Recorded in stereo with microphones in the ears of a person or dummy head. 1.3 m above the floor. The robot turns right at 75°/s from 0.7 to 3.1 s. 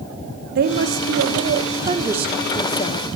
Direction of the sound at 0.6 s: 115° right.